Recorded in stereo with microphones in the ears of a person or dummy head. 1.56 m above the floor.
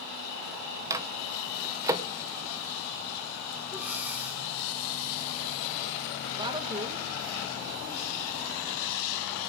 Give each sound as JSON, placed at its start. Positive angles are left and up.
{"t": 0.9, "sound": "a microwave", "side_deg": -10, "distance_m": 0.8}
{"t": 3.7, "sound": "breathing", "side_deg": -5, "distance_m": 1.0}
{"t": 6.4, "sound": "a woman speaking", "side_deg": -15, "distance_m": 1.8}